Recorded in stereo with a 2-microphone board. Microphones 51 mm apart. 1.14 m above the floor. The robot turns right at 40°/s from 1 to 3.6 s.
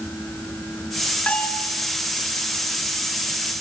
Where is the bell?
25° left (ahead or behind), 4 m; by 1.7 s 45° left (ahead or behind), 4 m.